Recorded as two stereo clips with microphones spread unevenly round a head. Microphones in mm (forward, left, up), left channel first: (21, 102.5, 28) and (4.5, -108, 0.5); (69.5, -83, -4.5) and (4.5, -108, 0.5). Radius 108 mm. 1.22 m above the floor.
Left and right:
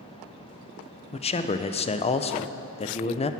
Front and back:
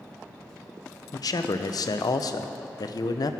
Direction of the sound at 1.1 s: 20° left.